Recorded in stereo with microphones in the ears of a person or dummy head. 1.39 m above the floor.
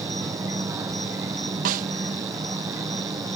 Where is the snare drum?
50° right (ahead or behind).